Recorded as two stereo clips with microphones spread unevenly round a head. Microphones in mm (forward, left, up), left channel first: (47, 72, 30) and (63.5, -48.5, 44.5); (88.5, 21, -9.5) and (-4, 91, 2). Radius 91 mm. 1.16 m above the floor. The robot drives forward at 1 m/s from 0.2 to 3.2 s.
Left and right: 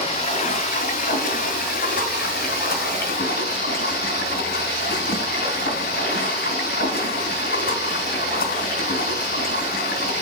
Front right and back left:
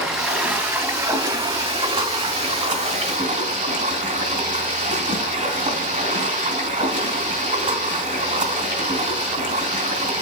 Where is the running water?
60° left, 2.5 m; by 10.2 s 130° left, 3 m.